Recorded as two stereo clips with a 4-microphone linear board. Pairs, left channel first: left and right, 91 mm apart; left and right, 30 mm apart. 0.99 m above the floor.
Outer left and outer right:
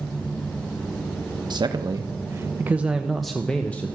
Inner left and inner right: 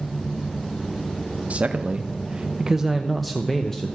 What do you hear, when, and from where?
1.5 s a man speaking: 50° right (ahead or behind), 1.0 m; by 4.0 s 20° left (ahead or behind), 1.0 m